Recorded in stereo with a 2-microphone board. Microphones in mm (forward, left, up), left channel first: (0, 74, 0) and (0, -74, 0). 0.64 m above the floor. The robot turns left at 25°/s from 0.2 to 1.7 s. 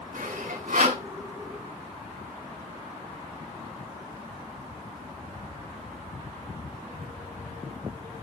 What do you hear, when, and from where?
0.1 s sawing: 75° right (ahead or behind), 4 m; by 1.0 s 80° right, 4 m